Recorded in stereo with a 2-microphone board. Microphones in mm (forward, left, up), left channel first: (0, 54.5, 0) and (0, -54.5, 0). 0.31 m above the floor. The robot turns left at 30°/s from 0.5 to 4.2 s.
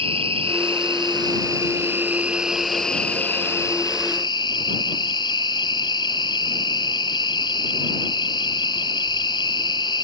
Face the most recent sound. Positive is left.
turn(degrees=135)